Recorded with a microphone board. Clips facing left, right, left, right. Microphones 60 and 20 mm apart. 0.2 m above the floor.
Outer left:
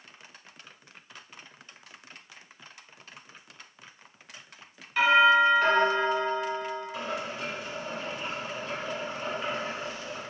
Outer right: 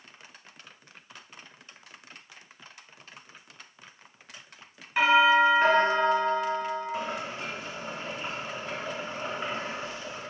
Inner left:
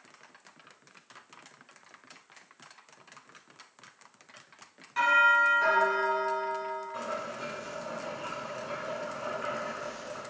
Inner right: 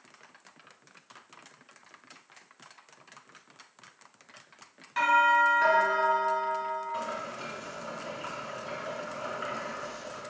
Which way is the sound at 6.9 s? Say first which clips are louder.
Outer right 1 dB, inner right 1 dB; 30° right (ahead or behind).